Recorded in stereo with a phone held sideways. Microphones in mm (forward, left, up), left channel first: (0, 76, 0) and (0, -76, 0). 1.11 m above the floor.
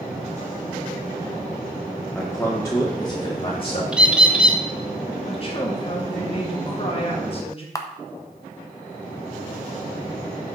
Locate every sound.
2.1 s a man speaking: centre (ahead or behind), 1.2 m; by 3.8 s 40° left (ahead or behind), 1.9 m
3.9 s a bird: 5° right (ahead or behind), 0.8 m
5.2 s a woman speaking: 40° left (ahead or behind), 2 m
7.8 s a camera shutter: 20° left (ahead or behind), 0.7 m